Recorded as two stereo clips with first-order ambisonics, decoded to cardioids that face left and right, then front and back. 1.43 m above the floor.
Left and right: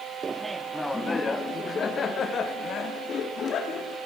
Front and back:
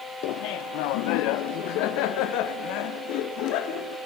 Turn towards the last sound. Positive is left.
turn(degrees=35)